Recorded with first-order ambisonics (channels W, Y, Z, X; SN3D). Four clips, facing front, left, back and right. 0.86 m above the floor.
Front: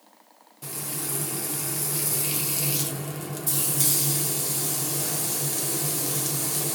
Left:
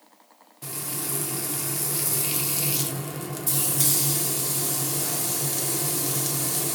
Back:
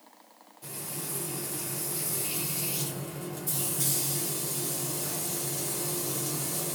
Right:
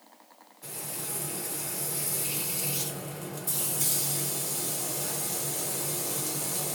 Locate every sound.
0.6 s frying: 55° left, 0.8 m